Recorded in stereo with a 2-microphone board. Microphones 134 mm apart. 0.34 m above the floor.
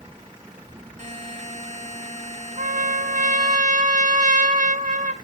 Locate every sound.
1.0 s a buzzer: 60° right (ahead or behind), 1.9 m
2.6 s a trumpet: 75° right (ahead or behind), 0.9 m